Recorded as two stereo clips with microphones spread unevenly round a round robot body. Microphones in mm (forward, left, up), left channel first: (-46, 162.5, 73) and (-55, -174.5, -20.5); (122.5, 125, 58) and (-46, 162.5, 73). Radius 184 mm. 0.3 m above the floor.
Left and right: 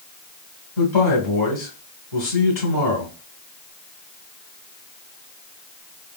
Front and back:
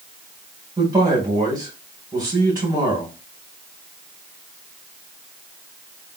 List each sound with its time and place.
0.8 s a man speaking: 105° left, 1.8 m